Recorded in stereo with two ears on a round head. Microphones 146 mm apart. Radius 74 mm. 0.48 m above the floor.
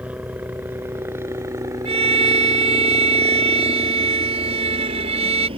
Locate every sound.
0.0 s a helicopter: 10° right (ahead or behind); by 5.6 s 35° right (ahead or behind)
1.9 s a violin: 40° right (ahead or behind)